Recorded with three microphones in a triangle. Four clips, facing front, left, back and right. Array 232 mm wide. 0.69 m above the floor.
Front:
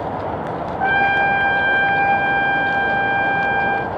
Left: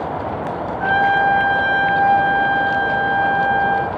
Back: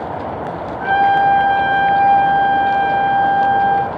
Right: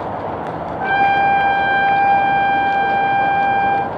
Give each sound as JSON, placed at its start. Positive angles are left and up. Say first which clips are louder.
{"t": 0.8, "sound": "a trumpet", "louder": "right 2 dB, back 5 dB", "azimuth_deg": -5, "distance_m": 2.0}